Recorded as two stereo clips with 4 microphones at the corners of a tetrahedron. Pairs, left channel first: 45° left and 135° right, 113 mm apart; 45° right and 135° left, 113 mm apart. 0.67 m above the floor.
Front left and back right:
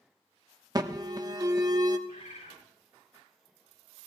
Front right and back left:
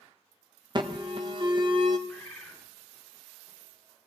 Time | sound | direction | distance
0.8 | an alarm | 175° left | 1.1 m
2.1 | a bird | 40° left | 6 m